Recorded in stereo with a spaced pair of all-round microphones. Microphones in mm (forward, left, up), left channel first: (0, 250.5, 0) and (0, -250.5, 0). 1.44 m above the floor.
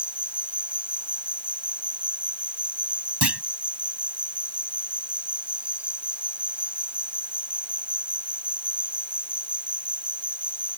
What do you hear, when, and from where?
0.0 s an insect: centre (ahead or behind)
3.2 s a clunk: 50° right (ahead or behind)